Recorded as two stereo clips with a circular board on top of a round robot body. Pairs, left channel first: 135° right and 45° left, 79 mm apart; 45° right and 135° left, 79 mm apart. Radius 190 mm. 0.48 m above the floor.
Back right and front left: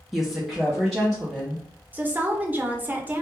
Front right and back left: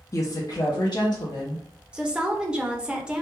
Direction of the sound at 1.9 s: 75° left.